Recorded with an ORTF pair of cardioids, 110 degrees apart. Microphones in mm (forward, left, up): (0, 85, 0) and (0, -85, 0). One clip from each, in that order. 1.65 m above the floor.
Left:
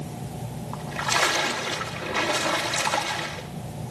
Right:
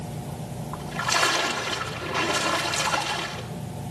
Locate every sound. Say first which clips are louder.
0.7 s a splash: even; 10° left, 3 m